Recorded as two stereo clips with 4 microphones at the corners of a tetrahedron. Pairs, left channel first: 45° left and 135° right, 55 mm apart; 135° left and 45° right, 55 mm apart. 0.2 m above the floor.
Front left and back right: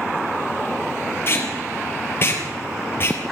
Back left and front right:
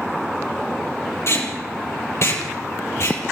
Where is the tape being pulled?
95° left, 5 m.